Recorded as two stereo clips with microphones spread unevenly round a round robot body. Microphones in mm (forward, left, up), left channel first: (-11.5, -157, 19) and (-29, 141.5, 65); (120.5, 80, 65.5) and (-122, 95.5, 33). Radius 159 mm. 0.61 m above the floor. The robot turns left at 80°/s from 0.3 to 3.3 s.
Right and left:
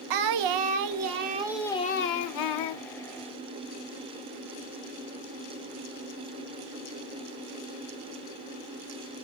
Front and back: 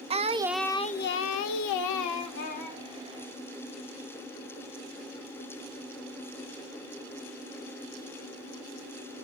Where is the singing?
105° left, 0.5 m; by 2.8 s 95° right, 0.5 m.